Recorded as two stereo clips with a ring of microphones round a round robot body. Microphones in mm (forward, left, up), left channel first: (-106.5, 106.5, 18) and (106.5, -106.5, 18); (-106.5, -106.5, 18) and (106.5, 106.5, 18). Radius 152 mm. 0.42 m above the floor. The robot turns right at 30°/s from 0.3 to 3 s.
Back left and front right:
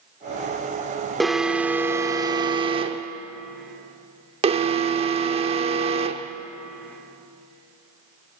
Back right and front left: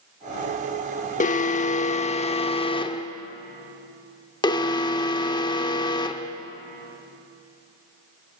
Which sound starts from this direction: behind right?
An alarm, at 1.2 s.